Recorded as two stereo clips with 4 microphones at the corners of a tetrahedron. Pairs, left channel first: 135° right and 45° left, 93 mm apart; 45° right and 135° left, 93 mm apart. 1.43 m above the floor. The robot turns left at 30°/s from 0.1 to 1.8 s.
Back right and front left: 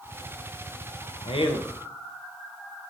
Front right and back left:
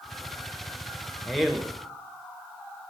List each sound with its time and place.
1.2 s a man speaking: 130° right, 1.1 m; by 1.7 s 145° right, 1.1 m